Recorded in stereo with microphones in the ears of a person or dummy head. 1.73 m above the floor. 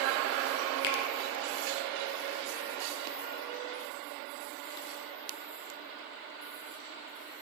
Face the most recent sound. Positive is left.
turn(degrees=60)  # may be behind; listen again after turning